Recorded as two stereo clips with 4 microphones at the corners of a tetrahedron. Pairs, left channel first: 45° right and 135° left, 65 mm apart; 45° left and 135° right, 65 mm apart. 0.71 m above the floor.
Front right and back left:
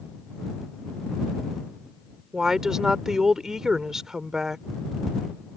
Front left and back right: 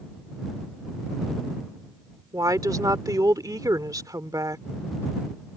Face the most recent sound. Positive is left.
turn(degrees=-145)